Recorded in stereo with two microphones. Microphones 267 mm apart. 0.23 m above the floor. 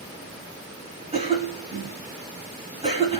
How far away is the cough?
About 1.2 m.